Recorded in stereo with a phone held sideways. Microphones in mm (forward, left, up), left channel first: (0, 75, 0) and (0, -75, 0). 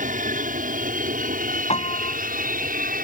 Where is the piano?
45° left (ahead or behind).